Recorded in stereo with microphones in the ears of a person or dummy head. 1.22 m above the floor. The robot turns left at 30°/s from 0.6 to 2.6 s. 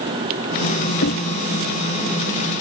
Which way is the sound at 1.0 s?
70° left (ahead or behind).